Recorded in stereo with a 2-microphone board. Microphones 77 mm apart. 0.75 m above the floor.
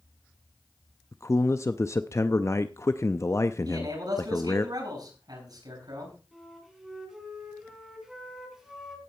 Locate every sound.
1.1 s a man speaking: 35° left (ahead or behind), 0.5 m
3.6 s a man speaking: 60° right (ahead or behind), 8.5 m
6.3 s a flute: 5° right (ahead or behind), 4.5 m